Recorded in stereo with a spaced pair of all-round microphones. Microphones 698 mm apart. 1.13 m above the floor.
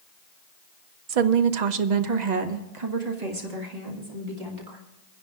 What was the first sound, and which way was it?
A woman speaking, 55° right (ahead or behind).